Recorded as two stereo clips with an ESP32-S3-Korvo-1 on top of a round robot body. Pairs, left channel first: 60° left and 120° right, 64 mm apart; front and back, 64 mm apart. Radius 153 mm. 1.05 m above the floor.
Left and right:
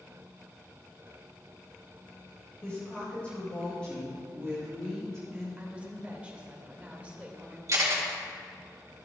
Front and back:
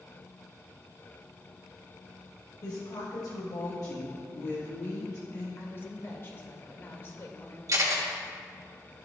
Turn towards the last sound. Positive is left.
turn(degrees=-155)